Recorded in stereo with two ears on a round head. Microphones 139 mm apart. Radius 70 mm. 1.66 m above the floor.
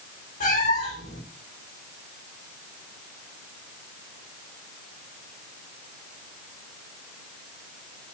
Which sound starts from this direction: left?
A cat meowing, at 0.4 s.